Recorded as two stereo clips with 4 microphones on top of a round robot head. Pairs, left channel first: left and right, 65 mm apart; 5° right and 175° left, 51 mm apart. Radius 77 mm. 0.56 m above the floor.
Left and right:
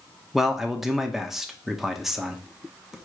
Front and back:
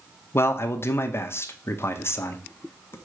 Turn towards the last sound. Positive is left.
turn(degrees=-5)